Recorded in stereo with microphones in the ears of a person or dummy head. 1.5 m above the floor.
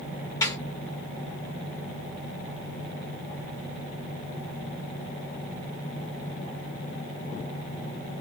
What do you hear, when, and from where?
0.4 s a snare drum: 20° left (ahead or behind), 1.6 m